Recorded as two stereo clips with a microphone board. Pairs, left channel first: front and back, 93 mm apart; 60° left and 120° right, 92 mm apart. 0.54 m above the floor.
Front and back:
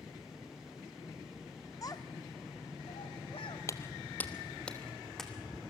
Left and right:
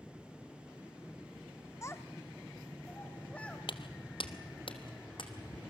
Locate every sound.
1.8 s a child speaking: 20° left, 0.9 m; by 3.6 s 15° right, 2.5 m
3.7 s footsteps: 55° left, 1.0 m; by 5.6 s 90° left, 2.5 m